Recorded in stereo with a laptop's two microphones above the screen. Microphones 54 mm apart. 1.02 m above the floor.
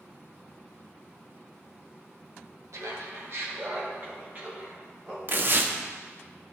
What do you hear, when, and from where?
2.7 s laughter: 75° right (ahead or behind), 1.2 m; by 5.2 s 25° right (ahead or behind), 2.5 m
5.3 s tearing paper: 45° right (ahead or behind), 0.5 m